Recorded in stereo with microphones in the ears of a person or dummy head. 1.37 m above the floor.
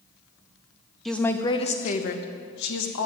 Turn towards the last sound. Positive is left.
turn(degrees=70)  # may be behind; listen again after turning